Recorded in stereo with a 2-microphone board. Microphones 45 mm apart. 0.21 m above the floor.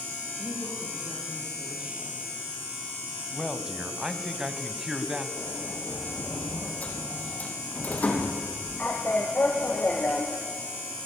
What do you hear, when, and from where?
0.4 s a woman speaking: 30° right (ahead or behind), 6.5 m
3.3 s a man speaking: 15° right (ahead or behind), 1.5 m
5.4 s a sliding door: 35° left (ahead or behind), 4 m